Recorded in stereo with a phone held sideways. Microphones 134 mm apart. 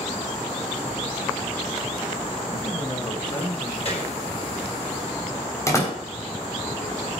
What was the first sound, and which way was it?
A man speaking, 35° left (ahead or behind).